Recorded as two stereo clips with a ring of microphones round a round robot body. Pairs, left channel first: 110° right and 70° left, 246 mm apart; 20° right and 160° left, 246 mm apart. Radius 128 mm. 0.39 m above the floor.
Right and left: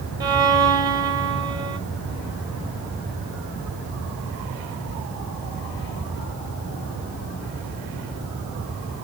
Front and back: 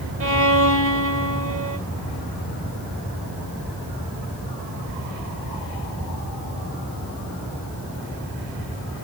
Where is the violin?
140° left, 2.5 m.